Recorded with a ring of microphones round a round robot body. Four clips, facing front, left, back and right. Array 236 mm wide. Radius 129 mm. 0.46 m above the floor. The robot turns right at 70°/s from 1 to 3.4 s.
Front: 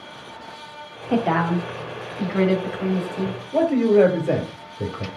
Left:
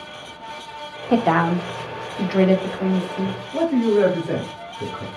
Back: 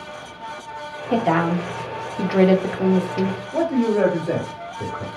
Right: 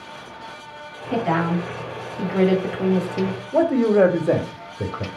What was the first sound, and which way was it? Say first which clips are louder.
A woman speaking: left 4 dB, back 1 dB; 85° left.